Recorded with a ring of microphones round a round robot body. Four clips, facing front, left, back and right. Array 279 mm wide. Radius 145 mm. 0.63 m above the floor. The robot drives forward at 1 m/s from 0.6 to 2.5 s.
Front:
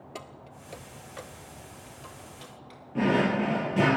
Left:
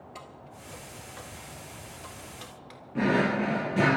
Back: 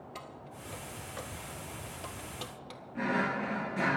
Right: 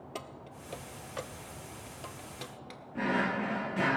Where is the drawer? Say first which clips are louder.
Left 6 dB, front 7 dB; 40° left, 0.7 m.